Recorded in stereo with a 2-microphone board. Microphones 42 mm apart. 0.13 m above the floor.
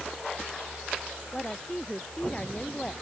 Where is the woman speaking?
20° left (ahead or behind).